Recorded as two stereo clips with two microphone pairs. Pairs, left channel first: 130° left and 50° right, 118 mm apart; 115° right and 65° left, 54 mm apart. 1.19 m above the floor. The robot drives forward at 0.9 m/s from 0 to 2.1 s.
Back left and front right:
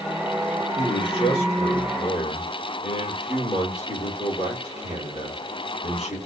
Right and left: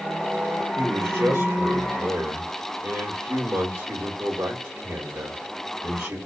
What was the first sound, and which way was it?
A man speaking, 90° left.